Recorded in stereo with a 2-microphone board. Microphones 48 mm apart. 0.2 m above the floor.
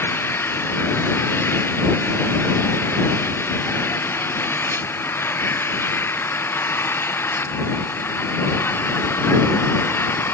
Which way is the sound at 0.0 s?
55° left (ahead or behind).